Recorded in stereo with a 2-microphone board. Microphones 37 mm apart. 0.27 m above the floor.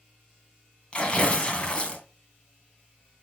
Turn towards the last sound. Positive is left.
turn(degrees=25)  # may be behind; listen again after turning